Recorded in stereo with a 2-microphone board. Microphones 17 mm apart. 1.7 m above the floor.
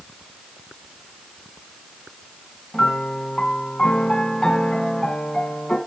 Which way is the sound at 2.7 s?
50° left (ahead or behind).